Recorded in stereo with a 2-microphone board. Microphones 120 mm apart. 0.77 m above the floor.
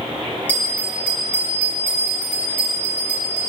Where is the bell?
15° left (ahead or behind), 4 m.